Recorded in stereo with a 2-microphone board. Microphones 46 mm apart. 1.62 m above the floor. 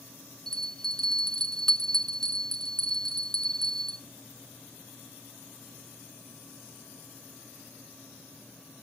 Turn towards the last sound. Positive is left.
turn(degrees=10)  # may be behind; listen again after turning